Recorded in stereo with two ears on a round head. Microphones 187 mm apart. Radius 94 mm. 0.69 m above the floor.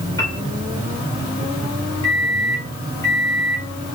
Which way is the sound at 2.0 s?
15° left (ahead or behind).